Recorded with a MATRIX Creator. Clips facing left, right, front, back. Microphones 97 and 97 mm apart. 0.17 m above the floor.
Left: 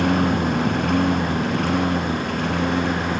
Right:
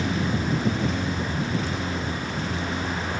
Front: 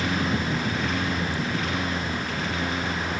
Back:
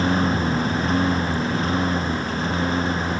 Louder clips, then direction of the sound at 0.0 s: Left 7 dB, back 5 dB; 120° left.